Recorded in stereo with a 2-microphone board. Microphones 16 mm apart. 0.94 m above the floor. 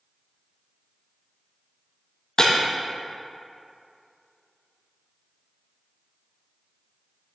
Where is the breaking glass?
35° left (ahead or behind), 2.5 m.